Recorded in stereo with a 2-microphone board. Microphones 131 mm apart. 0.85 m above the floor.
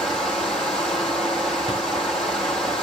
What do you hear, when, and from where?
0.0 s running water: 5° left (ahead or behind), 3.5 m
1.7 s writing: 45° left (ahead or behind), 7 m